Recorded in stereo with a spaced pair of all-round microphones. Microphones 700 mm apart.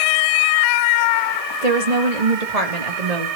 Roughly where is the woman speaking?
Right.